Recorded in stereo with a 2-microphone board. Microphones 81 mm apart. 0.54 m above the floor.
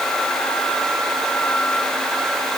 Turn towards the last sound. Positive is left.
No sound to turn to.